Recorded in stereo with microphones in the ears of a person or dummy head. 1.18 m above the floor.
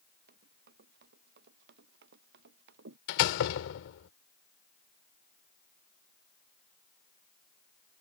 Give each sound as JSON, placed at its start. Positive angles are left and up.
{"t": 0.3, "sound": "running footsteps", "side_deg": -55}
{"t": 3.1, "sound": "a door slam", "side_deg": 65}